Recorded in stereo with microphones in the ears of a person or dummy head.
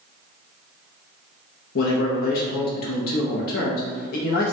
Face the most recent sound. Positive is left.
turn(degrees=55)  # may be behind; listen again after turning